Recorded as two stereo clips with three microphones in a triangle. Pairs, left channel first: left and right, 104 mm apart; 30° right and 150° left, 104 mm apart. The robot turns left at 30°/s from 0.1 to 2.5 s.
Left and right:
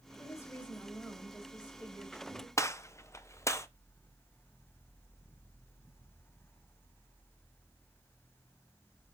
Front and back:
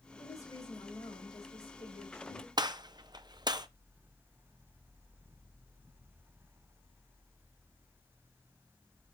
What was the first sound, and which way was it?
A woman speaking, 35° left.